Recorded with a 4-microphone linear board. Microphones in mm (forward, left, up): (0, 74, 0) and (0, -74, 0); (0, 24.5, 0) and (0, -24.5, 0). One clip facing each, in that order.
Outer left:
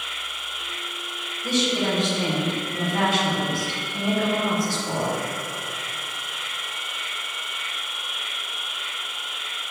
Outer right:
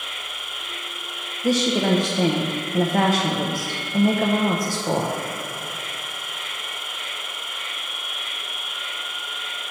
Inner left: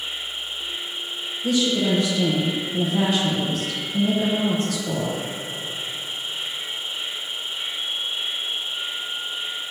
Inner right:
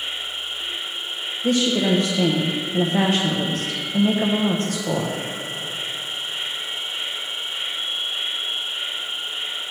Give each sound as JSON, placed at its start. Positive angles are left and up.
{"t": 0.0, "sound": "an insect", "side_deg": -55, "distance_m": 1.1}
{"t": 1.4, "sound": "a woman speaking", "side_deg": -45, "distance_m": 0.8}